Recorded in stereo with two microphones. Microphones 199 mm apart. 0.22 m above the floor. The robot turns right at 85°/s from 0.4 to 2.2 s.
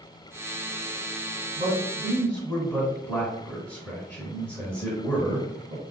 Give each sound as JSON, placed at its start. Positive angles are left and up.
{"t": 1.6, "sound": "a man speaking", "azimuth_deg": -50, "distance_m": 2.0}